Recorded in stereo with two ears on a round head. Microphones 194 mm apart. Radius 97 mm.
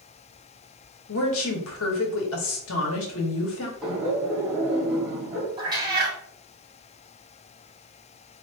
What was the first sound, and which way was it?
A woman speaking, 65° left (ahead or behind).